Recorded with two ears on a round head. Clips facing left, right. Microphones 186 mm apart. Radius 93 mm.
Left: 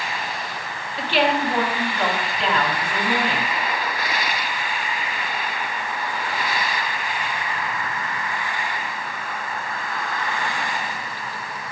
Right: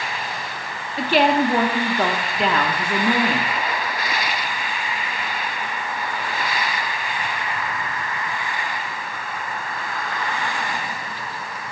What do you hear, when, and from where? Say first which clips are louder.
1.0 s a woman speaking: right 4 dB; 40° right (ahead or behind), 0.8 m